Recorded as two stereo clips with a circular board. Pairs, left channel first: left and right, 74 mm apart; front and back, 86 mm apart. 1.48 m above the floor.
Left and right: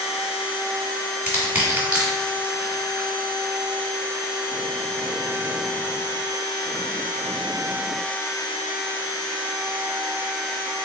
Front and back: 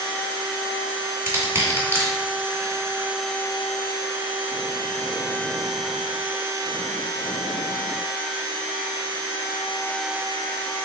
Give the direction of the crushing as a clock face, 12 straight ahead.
5 o'clock.